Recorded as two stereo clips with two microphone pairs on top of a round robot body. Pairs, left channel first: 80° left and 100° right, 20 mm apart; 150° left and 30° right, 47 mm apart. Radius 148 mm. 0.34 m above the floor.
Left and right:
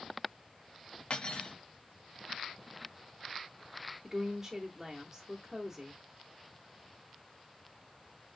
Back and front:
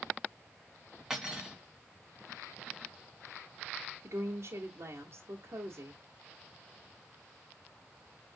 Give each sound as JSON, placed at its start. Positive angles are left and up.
{"t": 1.1, "sound": "cutlery clinking", "azimuth_deg": 50, "distance_m": 3.0}
{"t": 4.0, "sound": "a woman speaking", "azimuth_deg": -20, "distance_m": 1.8}